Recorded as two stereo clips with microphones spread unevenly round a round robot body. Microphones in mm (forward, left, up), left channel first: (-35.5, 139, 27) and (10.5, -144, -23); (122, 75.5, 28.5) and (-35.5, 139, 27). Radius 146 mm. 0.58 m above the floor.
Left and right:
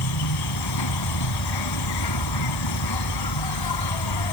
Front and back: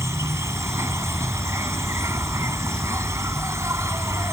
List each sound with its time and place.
0.0 s an insect: 85° left